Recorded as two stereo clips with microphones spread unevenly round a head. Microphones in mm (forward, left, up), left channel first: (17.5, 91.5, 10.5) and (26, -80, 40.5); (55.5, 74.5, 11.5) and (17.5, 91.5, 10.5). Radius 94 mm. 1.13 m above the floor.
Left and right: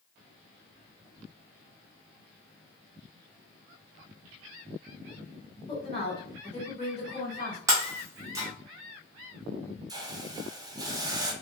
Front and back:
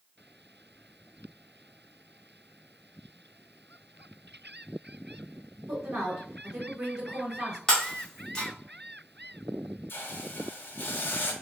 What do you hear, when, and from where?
5.7 s a woman speaking: 155° left, 1.8 m
7.7 s breaking glass: 75° right, 0.6 m
9.9 s a hiss: 25° right, 0.5 m